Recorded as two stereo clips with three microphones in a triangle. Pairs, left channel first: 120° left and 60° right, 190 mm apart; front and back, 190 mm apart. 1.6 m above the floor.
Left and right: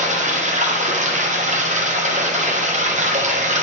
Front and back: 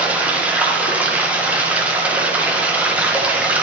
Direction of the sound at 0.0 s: 100° right.